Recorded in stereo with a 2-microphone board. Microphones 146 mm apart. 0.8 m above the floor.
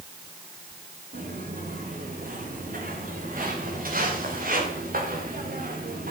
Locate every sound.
1.1 s footsteps: 70° right (ahead or behind), 9.5 m; by 6.1 s 80° right, 5 m